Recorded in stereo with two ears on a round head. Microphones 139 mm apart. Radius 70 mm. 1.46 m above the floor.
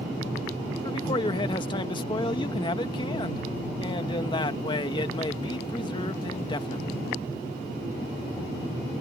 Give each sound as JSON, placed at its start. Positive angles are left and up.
{"t": 0.8, "sound": "a man speaking", "side_deg": 30}